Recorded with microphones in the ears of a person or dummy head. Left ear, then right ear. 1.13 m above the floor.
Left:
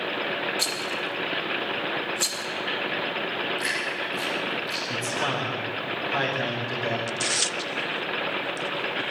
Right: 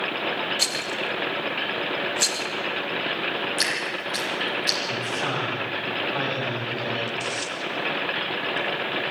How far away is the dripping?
About 8 m.